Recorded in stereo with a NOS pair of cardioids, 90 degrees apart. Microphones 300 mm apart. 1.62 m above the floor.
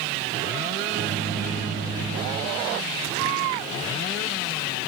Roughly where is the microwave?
Ahead right.